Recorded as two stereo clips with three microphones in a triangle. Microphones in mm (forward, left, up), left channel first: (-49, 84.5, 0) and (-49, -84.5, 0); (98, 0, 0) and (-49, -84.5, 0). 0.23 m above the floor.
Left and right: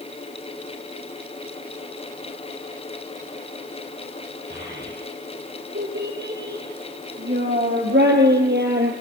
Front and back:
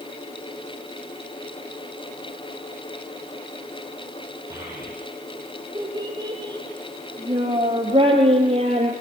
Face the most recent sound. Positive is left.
turn(degrees=-100)